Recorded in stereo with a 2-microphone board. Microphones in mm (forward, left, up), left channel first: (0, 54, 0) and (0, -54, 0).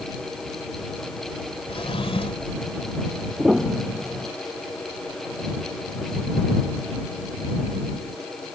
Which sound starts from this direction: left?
A drawer, at 1.7 s.